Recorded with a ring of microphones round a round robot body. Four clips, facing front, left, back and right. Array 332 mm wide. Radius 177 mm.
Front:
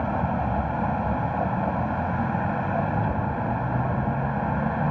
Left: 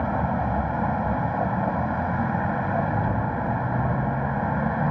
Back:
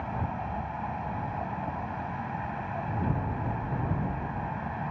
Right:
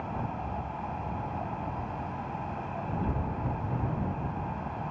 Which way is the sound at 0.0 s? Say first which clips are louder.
Left 10 dB, front 8 dB; 55° left.